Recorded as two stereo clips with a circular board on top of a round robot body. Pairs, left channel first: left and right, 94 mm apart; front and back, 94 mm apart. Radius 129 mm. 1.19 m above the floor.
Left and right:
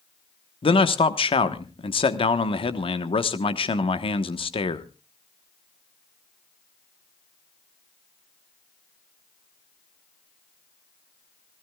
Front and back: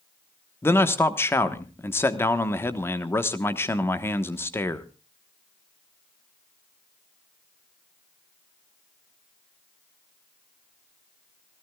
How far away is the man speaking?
About 1.3 m.